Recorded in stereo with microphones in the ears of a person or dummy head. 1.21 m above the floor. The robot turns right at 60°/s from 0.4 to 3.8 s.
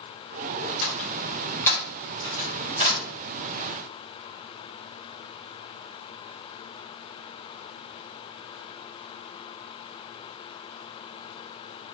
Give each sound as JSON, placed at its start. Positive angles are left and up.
{"t": 0.8, "sound": "a door slam", "side_deg": 55, "distance_m": 0.8}